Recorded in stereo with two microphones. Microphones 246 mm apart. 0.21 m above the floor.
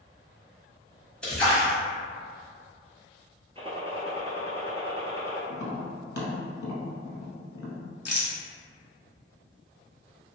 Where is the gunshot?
20° right (ahead or behind), 0.8 m.